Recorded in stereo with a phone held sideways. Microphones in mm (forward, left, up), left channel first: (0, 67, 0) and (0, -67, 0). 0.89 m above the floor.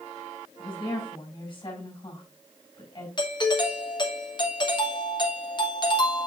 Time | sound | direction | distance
0.6 | a woman speaking | 40° left (ahead or behind) | 5.5 m
3.2 | a doorbell | 35° left (ahead or behind) | 1.1 m